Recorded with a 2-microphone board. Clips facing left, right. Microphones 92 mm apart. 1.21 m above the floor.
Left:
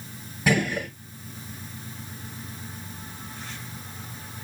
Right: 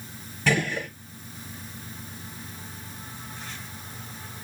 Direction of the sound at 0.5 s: 10° left (ahead or behind).